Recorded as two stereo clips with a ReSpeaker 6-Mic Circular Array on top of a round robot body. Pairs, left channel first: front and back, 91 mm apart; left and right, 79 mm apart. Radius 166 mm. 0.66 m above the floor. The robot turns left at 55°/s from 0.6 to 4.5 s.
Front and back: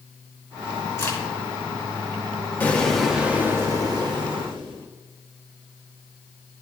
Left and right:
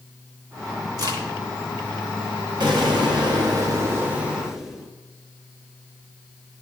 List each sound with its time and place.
1.0 s a crack: 55° right, 3.5 m; by 1.2 s 65° right, 3.5 m
2.6 s an explosion: 70° right, 1.5 m; by 4.9 s 175° right, 1.5 m